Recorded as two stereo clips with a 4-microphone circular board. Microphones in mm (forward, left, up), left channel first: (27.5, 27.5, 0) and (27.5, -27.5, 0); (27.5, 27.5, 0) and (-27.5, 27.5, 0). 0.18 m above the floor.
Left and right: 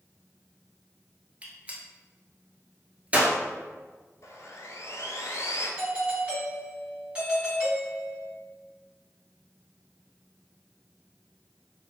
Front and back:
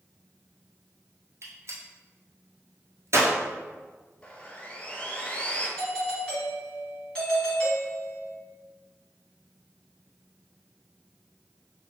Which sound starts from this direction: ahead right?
A doorbell, at 5.8 s.